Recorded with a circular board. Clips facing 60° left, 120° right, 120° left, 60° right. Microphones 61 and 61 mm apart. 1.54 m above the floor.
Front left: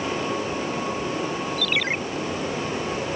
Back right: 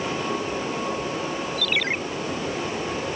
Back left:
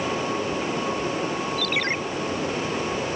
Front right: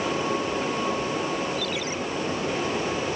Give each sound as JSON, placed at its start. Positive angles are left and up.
{"t": 1.6, "sound": "a ringtone", "azimuth_deg": 150}